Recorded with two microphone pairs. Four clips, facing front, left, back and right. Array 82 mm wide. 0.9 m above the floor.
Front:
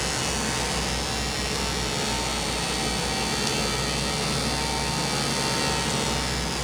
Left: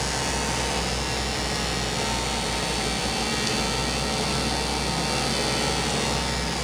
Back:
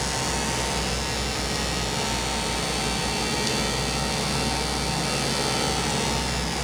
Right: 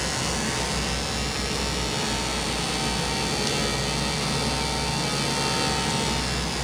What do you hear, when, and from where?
Only background noise.